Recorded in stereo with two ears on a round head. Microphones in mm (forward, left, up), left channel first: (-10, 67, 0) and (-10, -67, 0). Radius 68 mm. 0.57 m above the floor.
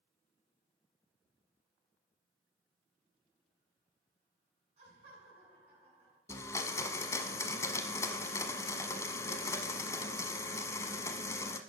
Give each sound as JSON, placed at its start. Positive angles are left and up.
{"t": 4.8, "sound": "laughter", "side_deg": -45, "distance_m": 7.5}
{"t": 6.3, "sound": "a blender", "side_deg": 20, "distance_m": 1.0}